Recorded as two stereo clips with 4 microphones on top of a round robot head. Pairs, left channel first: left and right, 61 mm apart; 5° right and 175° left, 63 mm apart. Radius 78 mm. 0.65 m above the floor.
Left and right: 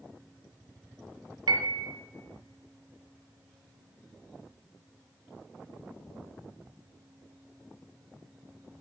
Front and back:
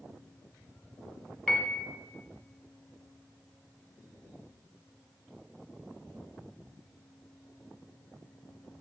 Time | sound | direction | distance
1.5 | a piano | 90° right | 1.0 m